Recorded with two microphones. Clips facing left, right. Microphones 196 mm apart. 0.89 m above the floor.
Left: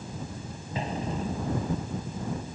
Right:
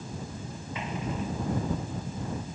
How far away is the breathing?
No breathing in this recording.